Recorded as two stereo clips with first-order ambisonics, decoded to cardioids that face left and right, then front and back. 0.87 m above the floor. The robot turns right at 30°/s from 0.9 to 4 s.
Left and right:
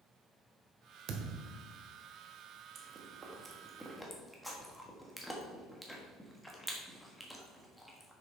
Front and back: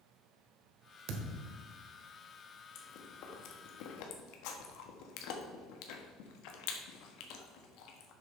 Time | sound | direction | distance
1.1 | a thud | 140° right | 1.3 m
2.8 | chewing | 35° right | 1.4 m